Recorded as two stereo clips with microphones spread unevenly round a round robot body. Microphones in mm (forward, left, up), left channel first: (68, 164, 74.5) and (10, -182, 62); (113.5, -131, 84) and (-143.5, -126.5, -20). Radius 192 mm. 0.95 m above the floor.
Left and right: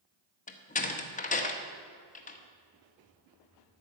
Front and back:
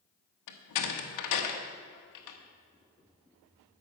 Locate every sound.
0.5 s a door slam: 10° left, 1.3 m